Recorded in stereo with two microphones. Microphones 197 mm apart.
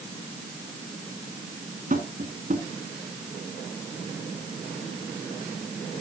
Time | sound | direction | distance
1.9 | tapping | 45° right (ahead or behind) | 2.5 m